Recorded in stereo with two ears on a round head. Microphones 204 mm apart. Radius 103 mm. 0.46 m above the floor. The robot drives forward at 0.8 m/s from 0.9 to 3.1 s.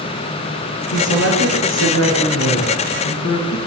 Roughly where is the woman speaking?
Left.